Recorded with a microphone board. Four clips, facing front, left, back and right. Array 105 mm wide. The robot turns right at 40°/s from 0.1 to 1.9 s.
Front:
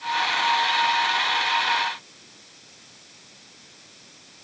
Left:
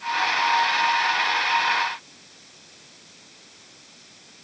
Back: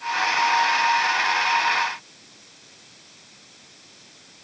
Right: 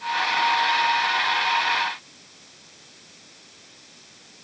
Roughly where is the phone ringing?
I don't hear a phone ringing.